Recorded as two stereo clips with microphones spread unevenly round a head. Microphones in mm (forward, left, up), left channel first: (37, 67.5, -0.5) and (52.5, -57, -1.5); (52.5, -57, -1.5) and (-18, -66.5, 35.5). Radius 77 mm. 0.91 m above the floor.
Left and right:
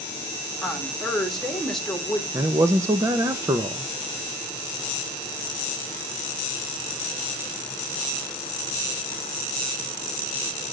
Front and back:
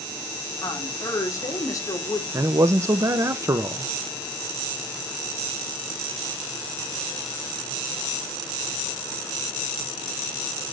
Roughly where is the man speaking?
Right.